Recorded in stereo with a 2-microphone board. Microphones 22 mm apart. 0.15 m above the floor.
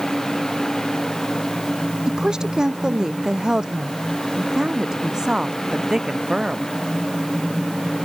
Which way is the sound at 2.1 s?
30° right (ahead or behind).